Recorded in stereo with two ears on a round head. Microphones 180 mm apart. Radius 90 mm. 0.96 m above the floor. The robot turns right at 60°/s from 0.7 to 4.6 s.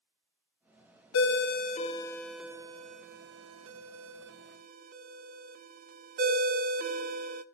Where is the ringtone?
70° left (ahead or behind), 0.6 m; by 7.4 s 45° right (ahead or behind), 0.6 m.